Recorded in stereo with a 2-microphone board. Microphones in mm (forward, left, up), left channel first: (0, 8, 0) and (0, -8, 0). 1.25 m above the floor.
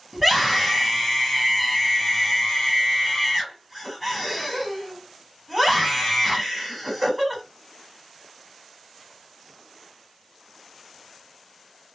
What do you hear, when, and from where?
0.1 s a scream: 5° right (ahead or behind), 1.1 m